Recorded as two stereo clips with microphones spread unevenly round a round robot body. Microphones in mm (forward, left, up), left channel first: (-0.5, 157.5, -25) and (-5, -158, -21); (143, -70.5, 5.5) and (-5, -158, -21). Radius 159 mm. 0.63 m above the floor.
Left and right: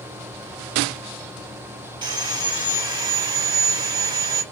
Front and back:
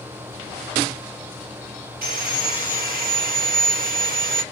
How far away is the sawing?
About 0.6 m.